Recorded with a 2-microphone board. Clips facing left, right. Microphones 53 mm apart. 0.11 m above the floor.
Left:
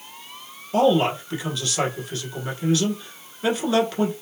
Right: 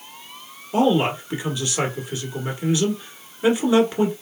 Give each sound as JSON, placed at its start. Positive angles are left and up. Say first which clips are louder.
{"t": 0.7, "sound": "a man speaking", "louder": "even", "side_deg": -15, "distance_m": 1.1}